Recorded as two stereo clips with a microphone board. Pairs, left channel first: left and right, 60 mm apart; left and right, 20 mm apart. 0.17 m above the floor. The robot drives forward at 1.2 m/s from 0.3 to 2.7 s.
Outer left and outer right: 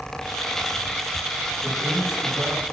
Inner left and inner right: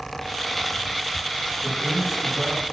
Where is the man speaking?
10° right (ahead or behind), 4.5 m.